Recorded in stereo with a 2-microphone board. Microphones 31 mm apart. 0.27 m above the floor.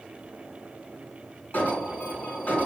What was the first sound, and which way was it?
An alarm, 65° left (ahead or behind).